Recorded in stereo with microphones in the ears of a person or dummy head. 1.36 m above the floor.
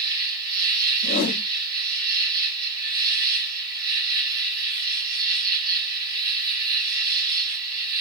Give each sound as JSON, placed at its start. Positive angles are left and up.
{"t": 0.0, "sound": "an insect", "side_deg": -55, "distance_m": 3.0}
{"t": 1.0, "sound": "a whoosh", "side_deg": 55, "distance_m": 0.6}